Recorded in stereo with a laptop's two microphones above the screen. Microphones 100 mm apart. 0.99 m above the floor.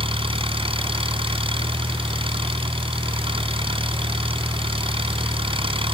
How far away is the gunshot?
I don't hear a gunshot.